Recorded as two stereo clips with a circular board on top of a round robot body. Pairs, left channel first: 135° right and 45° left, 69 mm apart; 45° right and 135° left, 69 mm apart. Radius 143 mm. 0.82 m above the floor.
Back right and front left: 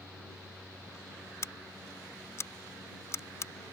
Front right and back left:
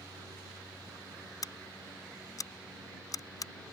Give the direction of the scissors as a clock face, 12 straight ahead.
3 o'clock.